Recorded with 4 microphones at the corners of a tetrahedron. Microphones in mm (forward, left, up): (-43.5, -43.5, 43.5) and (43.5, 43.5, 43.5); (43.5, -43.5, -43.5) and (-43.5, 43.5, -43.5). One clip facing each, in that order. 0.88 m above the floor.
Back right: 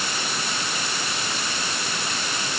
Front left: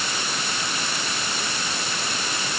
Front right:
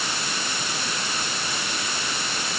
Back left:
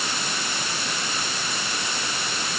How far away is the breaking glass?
No breaking glass in this recording.